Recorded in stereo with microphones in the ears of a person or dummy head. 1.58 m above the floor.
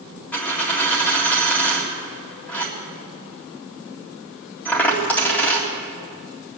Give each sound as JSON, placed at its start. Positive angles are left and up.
{"t": 0.3, "sound": "a dropped coin", "side_deg": 15, "distance_m": 1.9}